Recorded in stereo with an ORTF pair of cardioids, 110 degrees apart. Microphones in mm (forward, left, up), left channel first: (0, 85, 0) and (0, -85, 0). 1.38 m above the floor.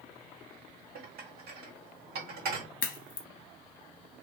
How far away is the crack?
About 0.8 m.